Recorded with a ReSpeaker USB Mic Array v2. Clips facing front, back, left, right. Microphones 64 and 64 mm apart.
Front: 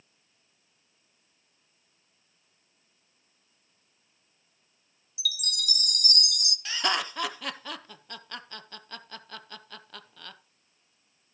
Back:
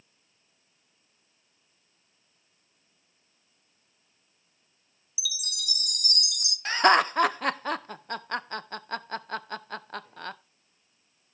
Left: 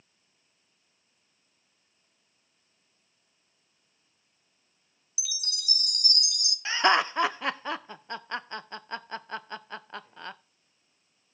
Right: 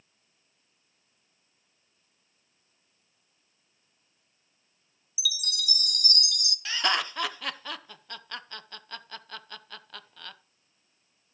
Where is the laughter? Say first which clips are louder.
Back 9 dB, left 6 dB; 145° left, 0.6 m.